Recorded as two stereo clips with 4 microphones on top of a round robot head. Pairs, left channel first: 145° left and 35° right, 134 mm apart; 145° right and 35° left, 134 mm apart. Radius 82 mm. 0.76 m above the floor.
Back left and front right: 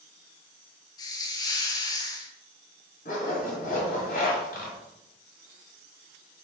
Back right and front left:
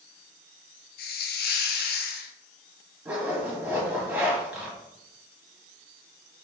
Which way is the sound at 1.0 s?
150° right.